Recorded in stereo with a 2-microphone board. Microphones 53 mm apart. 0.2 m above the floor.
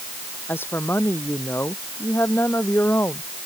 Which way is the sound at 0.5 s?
45° left (ahead or behind).